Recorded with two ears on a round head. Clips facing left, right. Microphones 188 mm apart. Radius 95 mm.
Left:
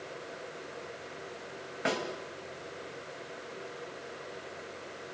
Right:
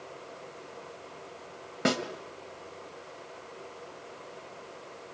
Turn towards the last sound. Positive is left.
turn(degrees=-55)  # may be behind; listen again after turning